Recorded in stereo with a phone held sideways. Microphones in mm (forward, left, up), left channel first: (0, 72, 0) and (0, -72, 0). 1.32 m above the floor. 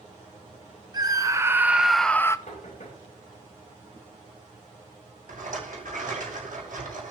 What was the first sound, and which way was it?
A scream, 30° right (ahead or behind).